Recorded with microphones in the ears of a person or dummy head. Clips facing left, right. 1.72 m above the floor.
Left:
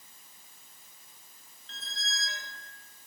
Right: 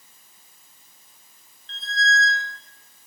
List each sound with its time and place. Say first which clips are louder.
1.7 s a squeak: right 18 dB; 10° left (ahead or behind), 1.4 m